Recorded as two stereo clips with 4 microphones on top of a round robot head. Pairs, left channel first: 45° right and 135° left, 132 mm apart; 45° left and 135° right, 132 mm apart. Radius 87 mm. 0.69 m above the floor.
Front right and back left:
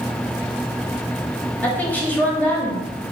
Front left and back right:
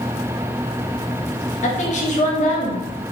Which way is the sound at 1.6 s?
30° left.